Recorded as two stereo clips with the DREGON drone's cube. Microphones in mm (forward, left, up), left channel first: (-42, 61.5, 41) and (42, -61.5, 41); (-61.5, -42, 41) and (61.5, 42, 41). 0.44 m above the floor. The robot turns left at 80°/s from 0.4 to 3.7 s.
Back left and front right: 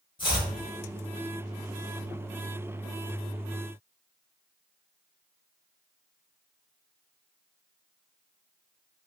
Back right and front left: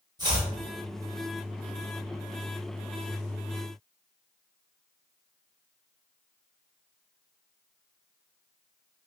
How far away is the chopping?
About 1.0 m.